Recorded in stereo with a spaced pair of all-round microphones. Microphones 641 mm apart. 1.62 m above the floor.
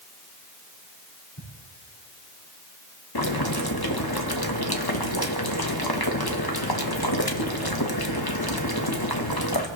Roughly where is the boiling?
Left.